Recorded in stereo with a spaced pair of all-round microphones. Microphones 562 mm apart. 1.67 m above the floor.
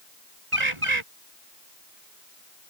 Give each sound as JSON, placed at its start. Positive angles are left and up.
{"t": 0.5, "sound": "a bird", "side_deg": -60}